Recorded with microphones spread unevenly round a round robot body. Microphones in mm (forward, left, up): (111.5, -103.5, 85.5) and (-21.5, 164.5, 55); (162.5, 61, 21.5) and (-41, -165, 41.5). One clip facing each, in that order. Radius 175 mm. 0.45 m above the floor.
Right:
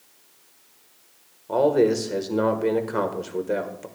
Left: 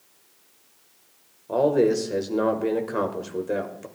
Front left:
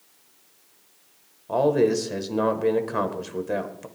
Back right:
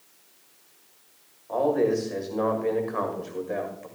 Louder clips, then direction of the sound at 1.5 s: Right 1 dB, front left 3 dB; 30° left.